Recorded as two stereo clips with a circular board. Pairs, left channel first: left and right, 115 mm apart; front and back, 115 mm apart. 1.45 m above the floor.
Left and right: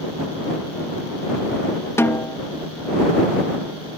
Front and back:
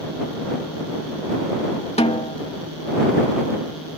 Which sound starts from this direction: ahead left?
A snare drum, at 2.0 s.